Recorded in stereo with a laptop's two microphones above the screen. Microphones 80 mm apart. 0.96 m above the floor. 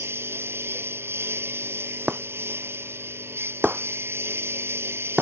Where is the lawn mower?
30° right (ahead or behind).